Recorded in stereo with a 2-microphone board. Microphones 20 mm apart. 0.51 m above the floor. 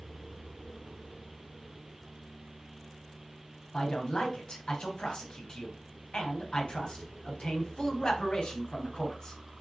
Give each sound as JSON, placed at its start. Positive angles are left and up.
{"t": 3.7, "sound": "a man speaking", "side_deg": 55, "distance_m": 3.0}